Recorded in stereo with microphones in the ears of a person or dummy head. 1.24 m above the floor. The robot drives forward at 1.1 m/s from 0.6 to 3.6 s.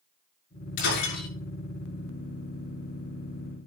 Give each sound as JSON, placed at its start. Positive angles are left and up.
{"t": 0.8, "sound": "breaking glass", "side_deg": 65, "distance_m": 7.5}